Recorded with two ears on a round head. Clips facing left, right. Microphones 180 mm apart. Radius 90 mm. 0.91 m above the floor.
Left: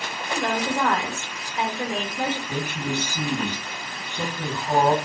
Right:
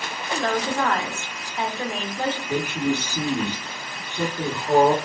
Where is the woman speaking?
5° left (ahead or behind), 0.6 m.